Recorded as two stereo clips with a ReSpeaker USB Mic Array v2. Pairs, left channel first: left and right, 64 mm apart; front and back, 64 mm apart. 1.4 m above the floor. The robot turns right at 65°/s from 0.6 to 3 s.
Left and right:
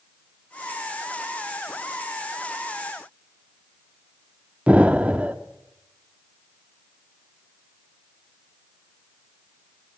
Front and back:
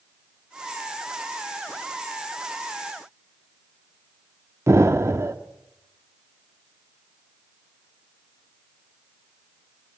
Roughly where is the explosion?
Behind right.